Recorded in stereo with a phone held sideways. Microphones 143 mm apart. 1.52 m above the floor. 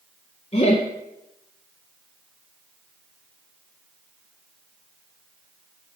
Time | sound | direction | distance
0.5 | laughter | 45° left (ahead or behind) | 0.5 m